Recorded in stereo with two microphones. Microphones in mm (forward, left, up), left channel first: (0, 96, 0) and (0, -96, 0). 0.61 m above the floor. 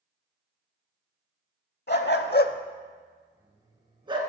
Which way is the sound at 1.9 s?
60° left (ahead or behind).